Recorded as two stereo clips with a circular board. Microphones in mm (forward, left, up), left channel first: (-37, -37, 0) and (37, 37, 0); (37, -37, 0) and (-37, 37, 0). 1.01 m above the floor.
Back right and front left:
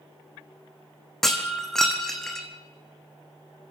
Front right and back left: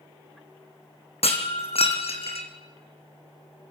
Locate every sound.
1.2 s breaking glass: 50° right, 3 m